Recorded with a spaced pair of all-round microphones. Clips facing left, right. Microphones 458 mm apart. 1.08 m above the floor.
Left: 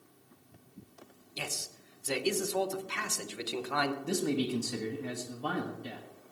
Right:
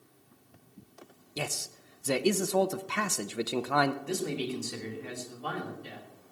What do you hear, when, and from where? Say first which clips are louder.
1.4 s a man speaking: right 6 dB; 65° right (ahead or behind), 0.7 m
4.0 s a man speaking: left 2 dB; 55° left (ahead or behind), 1.6 m